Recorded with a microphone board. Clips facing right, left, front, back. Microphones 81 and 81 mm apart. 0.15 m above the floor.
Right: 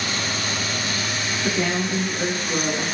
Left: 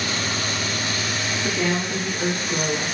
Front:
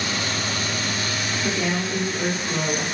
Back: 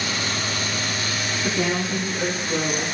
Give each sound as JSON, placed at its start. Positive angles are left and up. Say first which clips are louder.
{"t": 1.4, "sound": "a woman speaking", "louder": "right 1 dB, back 2 dB", "azimuth_deg": -170, "distance_m": 1.6}